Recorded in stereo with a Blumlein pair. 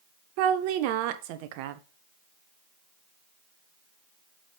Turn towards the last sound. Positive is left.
turn(degrees=-45)